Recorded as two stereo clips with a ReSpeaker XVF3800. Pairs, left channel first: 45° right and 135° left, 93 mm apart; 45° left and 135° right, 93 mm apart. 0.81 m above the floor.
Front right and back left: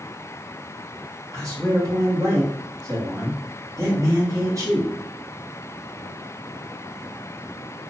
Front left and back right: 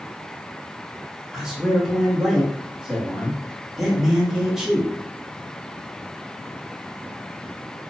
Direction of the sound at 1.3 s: 145° left.